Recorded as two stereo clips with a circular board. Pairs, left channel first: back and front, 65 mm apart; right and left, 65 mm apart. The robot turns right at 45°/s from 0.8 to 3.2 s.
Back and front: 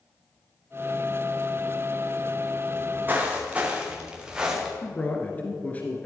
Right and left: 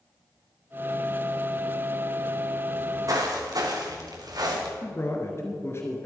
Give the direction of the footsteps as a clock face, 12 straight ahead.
11 o'clock.